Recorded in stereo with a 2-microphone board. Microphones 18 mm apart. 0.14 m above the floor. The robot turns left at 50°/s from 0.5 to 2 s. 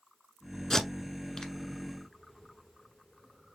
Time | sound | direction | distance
0.7 | tape being pulled | 35° left (ahead or behind) | 1.1 m